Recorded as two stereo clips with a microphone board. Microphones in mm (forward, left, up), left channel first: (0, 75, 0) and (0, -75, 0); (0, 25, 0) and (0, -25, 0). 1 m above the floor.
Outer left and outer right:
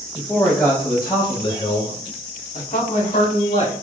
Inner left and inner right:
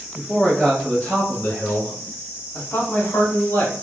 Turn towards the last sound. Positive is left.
turn(degrees=40)  # may be behind; listen again after turning